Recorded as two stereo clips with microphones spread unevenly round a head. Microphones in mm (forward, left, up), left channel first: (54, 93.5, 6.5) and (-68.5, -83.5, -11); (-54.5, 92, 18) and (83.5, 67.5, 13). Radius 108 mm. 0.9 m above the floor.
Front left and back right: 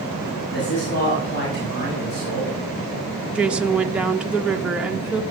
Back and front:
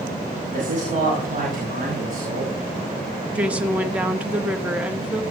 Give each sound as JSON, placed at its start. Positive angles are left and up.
{"t": 0.5, "sound": "a man speaking", "azimuth_deg": 10, "distance_m": 6.0}
{"t": 3.4, "sound": "a woman speaking", "azimuth_deg": -65, "distance_m": 0.7}